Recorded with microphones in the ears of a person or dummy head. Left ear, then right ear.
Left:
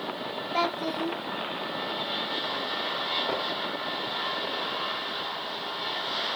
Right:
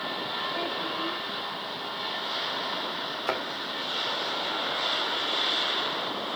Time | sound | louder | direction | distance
0.5 | a child speaking | left 2 dB | 70° left (ahead or behind) | 0.6 m
3.3 | a thud | even | 65° right (ahead or behind) | 4 m